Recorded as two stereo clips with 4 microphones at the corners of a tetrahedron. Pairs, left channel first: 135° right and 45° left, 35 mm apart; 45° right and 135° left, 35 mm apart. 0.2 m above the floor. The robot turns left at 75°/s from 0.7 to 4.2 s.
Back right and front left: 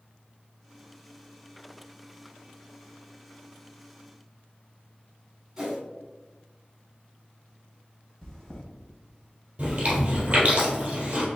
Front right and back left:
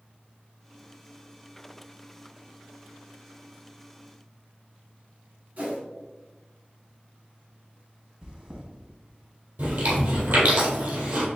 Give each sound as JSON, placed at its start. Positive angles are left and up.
{"t": 5.6, "sound": "a whoosh", "azimuth_deg": 115, "distance_m": 1.2}
{"t": 8.2, "sound": "chewing", "azimuth_deg": 170, "distance_m": 1.1}
{"t": 9.6, "sound": "chewing", "azimuth_deg": 100, "distance_m": 1.8}